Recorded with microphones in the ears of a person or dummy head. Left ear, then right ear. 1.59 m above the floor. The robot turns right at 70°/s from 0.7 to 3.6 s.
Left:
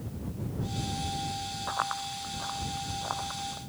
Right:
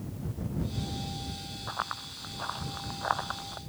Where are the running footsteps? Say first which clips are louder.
Left 3 dB; 15° left (ahead or behind); by 3.6 s 70° right (ahead or behind).